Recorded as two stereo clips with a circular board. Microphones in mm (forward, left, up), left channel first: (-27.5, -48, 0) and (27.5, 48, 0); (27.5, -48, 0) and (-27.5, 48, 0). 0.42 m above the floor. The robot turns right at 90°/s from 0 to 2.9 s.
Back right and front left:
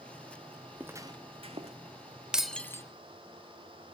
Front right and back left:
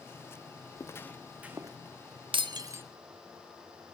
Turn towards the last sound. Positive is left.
turn(degrees=-170)